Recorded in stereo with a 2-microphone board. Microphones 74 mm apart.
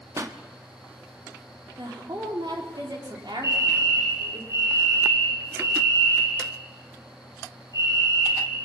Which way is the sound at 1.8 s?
85° right.